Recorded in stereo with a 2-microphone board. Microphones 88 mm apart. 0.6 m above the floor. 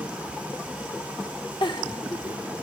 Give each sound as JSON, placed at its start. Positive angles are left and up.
{"t": 1.6, "sound": "a giggle", "side_deg": 65, "distance_m": 1.1}